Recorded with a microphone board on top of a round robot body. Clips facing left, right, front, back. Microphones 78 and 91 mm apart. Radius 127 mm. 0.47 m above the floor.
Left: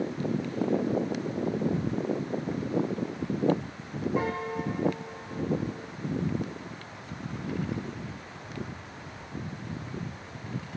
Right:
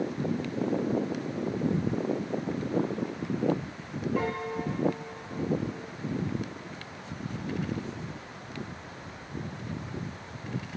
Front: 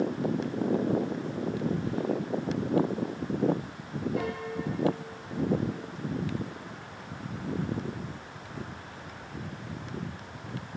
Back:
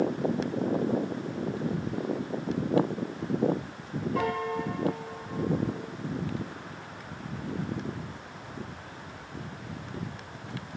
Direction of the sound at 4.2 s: 165° left.